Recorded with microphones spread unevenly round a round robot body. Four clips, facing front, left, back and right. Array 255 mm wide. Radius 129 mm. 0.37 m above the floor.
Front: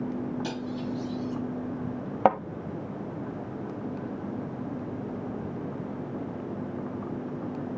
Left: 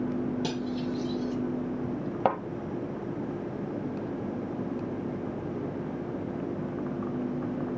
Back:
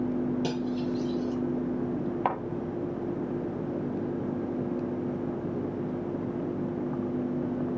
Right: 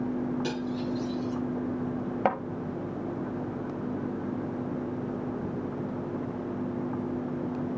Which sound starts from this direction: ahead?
A thud, at 2.2 s.